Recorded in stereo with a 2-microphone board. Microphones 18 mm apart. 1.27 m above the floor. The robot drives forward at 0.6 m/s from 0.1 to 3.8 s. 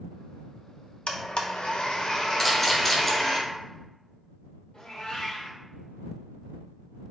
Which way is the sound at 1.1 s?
70° left (ahead or behind).